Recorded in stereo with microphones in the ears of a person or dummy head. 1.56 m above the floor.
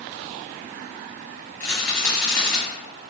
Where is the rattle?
10° left (ahead or behind), 0.8 m.